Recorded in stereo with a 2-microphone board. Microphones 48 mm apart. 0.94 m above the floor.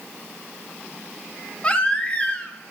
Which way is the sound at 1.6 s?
20° left (ahead or behind).